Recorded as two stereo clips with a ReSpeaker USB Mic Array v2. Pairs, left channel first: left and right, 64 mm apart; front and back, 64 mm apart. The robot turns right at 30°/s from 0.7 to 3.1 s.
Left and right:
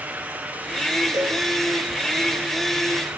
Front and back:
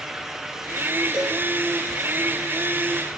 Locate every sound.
1.1 s a cowbell: 105° right, 3.5 m; by 1.4 s 95° right, 3.5 m